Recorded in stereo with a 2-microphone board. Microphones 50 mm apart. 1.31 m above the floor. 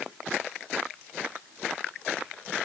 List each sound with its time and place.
Only background noise.